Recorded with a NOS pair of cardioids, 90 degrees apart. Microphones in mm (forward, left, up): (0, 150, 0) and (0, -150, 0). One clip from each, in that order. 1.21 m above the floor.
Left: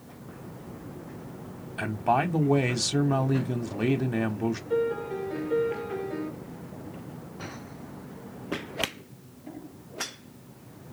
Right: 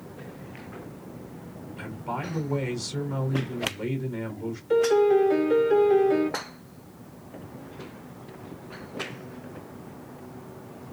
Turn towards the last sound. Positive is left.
turn(degrees=-55)